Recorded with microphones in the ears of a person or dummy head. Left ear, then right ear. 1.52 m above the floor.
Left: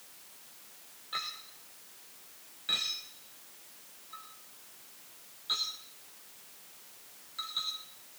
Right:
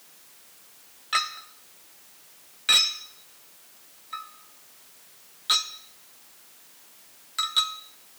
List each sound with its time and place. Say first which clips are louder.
1.1 s a clink: right 11 dB; 30° right (ahead or behind), 0.7 m